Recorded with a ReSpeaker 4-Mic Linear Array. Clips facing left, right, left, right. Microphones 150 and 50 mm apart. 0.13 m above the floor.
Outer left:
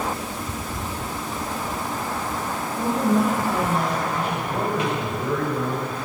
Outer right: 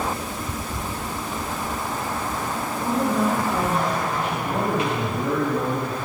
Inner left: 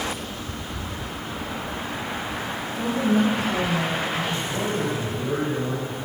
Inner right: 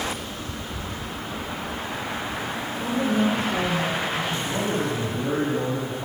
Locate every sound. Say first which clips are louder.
2.8 s a woman speaking: outer left 2 dB, inner left 2 dB; 45° left (ahead or behind), 3 m
4.5 s a man speaking: outer right 2 dB, even; 65° right (ahead or behind), 3 m